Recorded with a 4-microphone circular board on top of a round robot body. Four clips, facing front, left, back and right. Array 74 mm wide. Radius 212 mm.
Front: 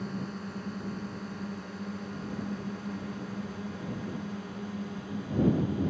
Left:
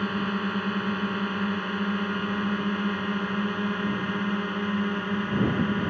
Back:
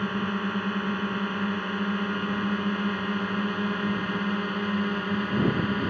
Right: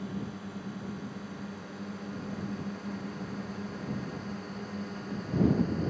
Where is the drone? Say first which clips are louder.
Left 11 dB, back 9 dB; 130° left; by 5.9 s 140° left.